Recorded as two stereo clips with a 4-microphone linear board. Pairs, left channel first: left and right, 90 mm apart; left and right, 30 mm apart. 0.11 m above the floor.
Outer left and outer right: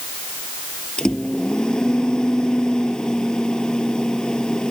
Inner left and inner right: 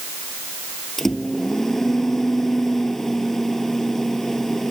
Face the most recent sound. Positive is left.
turn(degrees=10)  # may be behind; listen again after turning